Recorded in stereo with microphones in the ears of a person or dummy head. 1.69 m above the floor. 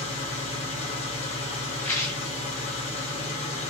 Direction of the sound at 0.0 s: 35° left (ahead or behind).